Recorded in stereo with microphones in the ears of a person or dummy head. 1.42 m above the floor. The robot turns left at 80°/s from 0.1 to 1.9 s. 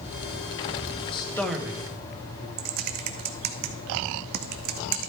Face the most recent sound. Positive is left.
turn(degrees=-45)  # may be behind; listen again after turning